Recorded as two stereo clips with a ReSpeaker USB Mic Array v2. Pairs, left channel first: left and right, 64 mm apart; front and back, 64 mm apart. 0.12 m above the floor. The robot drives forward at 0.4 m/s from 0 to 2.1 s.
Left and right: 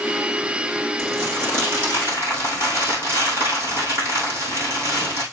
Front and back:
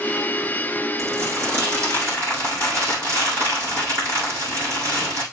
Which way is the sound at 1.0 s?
135° right.